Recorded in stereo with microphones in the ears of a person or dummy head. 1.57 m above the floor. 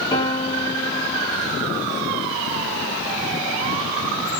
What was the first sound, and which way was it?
A piano, 20° left (ahead or behind).